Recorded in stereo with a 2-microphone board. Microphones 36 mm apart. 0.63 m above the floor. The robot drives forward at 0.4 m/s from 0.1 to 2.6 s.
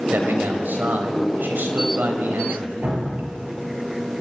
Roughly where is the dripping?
Right.